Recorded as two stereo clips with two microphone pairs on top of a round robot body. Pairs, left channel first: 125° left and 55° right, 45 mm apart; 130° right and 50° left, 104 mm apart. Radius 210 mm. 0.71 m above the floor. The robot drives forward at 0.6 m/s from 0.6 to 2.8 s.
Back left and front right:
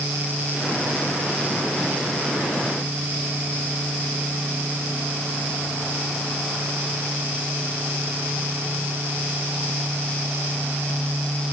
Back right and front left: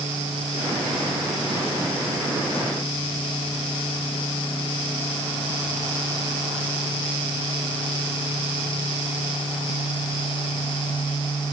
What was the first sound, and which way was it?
Only background noise.